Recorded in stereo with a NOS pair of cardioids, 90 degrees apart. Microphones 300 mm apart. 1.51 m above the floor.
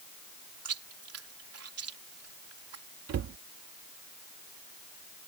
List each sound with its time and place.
0.7 s chewing: 50° right
3.1 s a cupboard door: 60° right